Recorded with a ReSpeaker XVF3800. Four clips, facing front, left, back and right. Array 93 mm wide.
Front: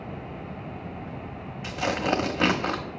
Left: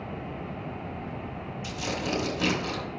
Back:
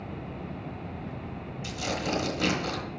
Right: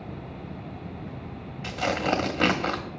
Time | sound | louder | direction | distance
1.6 | tearing paper | right 7 dB, front 6 dB | 45° right | 0.9 m